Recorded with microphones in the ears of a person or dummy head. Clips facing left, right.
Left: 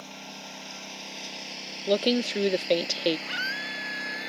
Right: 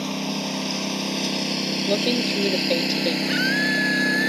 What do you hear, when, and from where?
0.0 s a lawn mower: 75° right (ahead or behind); by 4.3 s 70° right (ahead or behind)
1.9 s a woman speaking: centre (ahead or behind)
3.3 s a scream: 20° right (ahead or behind)